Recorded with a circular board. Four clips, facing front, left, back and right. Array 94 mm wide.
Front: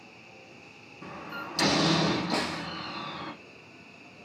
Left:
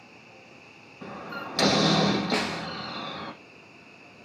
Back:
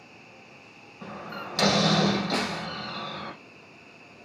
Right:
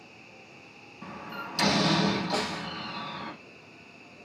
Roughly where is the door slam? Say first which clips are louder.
Left 3 dB, back 2 dB; behind left.